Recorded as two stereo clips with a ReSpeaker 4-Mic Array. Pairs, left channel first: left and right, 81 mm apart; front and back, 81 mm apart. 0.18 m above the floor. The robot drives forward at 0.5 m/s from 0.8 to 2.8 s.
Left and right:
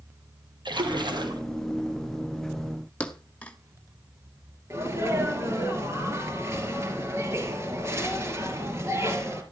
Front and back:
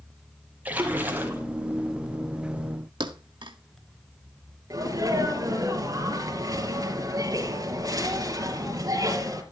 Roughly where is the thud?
Behind.